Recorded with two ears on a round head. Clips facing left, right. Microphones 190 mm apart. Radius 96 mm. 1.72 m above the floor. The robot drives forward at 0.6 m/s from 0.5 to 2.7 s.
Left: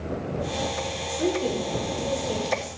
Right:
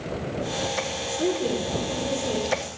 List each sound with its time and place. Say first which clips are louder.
1.1 s a woman speaking: even; centre (ahead or behind), 1.0 m